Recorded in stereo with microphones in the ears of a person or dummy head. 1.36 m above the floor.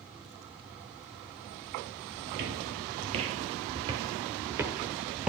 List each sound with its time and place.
2.3 s footsteps: 45° right (ahead or behind), 1.8 m; by 5.3 s centre (ahead or behind), 1.6 m